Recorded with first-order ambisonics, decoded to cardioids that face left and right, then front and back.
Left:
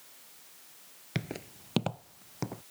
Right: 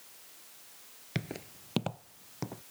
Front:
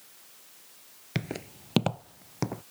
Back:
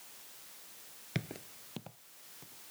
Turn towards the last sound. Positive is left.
turn(degrees=10)